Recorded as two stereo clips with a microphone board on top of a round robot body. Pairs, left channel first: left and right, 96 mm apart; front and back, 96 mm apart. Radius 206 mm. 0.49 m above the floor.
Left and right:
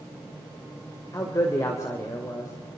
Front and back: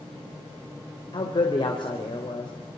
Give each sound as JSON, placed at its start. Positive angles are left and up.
{"t": 1.1, "sound": "a man speaking", "azimuth_deg": 35, "distance_m": 3.0}